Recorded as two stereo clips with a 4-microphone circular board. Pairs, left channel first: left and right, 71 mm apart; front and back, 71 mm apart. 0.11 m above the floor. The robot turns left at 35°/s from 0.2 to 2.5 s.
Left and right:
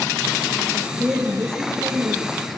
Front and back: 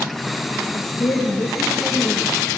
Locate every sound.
0.7 s a woman speaking: 10° right, 4 m; by 2.6 s 75° right, 4 m